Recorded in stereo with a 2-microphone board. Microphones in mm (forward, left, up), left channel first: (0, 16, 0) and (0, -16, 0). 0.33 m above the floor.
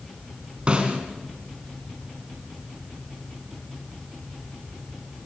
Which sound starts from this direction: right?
A snare drum, at 0.7 s.